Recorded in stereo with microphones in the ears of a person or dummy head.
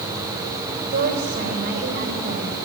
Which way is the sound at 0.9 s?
55° right (ahead or behind).